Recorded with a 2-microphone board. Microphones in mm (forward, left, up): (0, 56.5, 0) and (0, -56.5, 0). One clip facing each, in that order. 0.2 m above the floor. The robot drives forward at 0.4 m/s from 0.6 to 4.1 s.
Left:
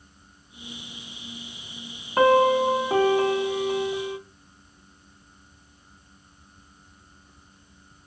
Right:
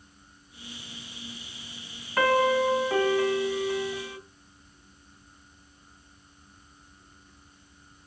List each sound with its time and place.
2.2 s a piano: 30° left (ahead or behind), 0.9 m; by 4.2 s 35° left (ahead or behind), 0.8 m